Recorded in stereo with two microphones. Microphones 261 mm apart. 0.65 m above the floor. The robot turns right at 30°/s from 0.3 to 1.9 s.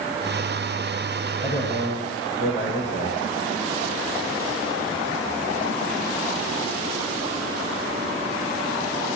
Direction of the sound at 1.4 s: 45° left (ahead or behind).